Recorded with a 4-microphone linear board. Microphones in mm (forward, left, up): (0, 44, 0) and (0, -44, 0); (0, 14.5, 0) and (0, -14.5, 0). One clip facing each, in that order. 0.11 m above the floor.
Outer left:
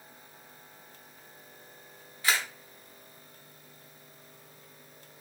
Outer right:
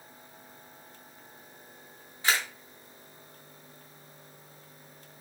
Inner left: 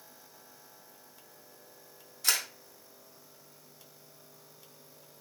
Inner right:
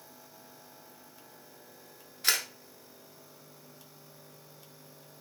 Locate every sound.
2.2 s a camera shutter: 25° right (ahead or behind), 0.7 m